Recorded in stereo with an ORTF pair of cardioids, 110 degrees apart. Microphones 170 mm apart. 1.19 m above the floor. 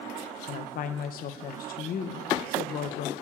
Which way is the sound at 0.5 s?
60° left.